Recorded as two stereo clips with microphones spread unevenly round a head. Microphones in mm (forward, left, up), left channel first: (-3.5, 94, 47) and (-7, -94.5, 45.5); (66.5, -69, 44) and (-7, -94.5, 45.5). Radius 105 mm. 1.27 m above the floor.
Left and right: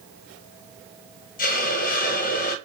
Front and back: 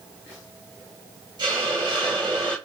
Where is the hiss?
130° left, 0.6 m.